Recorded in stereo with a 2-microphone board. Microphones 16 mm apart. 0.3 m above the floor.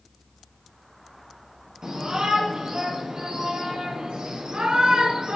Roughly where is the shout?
Right.